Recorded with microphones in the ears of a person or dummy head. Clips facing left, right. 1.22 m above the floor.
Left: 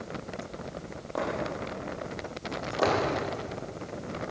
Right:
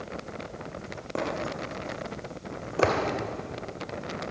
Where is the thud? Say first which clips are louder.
Even; 40° right (ahead or behind), 2.5 m.